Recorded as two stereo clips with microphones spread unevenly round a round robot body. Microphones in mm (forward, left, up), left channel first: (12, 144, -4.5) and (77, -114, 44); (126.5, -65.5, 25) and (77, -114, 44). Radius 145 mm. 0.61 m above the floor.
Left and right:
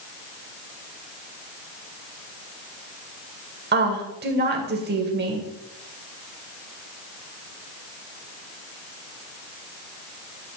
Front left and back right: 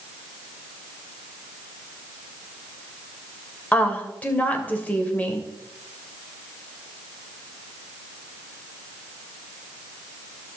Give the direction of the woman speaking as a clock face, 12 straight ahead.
1 o'clock.